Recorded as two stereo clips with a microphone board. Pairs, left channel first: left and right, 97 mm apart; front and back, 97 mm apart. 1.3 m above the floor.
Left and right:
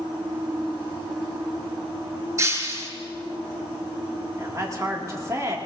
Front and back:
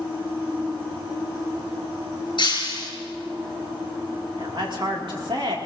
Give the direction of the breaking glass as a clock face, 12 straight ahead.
1 o'clock.